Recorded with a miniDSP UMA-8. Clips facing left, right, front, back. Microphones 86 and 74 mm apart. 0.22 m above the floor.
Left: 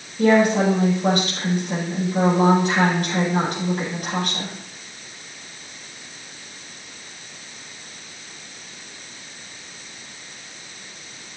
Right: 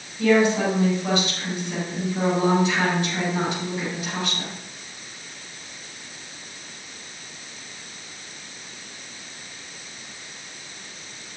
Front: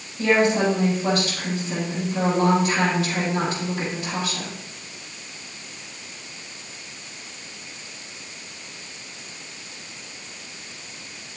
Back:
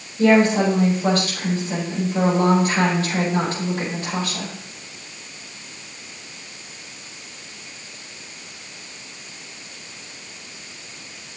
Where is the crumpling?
I don't hear crumpling.